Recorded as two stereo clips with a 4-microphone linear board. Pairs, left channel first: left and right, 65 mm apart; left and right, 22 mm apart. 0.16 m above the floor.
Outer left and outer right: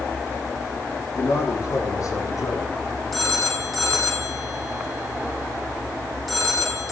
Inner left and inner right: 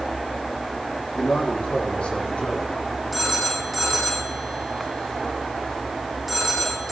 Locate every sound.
1.1 s a man speaking: 50° left (ahead or behind), 8 m; by 2.7 s 65° left (ahead or behind), 8 m
3.1 s a phone ringing: centre (ahead or behind), 5 m